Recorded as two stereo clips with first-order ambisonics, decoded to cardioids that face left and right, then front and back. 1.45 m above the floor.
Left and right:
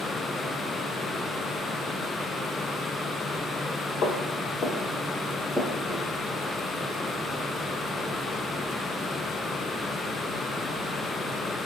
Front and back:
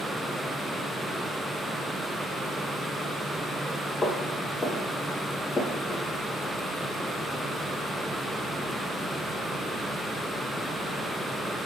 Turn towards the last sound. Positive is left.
turn(degrees=-25)